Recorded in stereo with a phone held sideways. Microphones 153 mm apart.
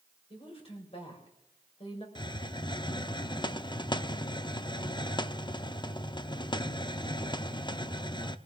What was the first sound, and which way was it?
A woman speaking, 35° left (ahead or behind).